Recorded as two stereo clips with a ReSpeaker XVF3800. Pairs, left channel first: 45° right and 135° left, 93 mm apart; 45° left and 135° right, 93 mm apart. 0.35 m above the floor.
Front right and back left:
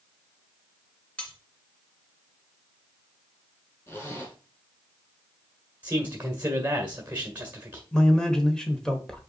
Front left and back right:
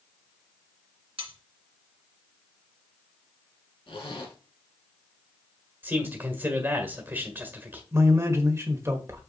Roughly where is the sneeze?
No sneeze in this recording.